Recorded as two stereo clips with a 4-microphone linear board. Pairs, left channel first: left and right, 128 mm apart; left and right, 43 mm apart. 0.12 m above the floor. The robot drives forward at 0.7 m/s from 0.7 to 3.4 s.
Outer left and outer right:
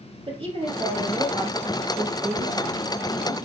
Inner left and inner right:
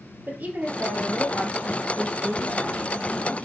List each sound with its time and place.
0.3 s a woman speaking: 45° right (ahead or behind), 3 m; by 3.5 s 60° right (ahead or behind), 2.5 m